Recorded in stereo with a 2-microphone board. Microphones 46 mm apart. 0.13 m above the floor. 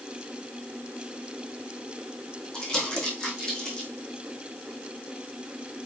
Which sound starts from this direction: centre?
Crumpling, at 2.5 s.